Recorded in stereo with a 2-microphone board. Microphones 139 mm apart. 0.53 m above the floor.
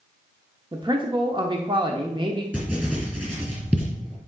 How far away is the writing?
About 3.5 m.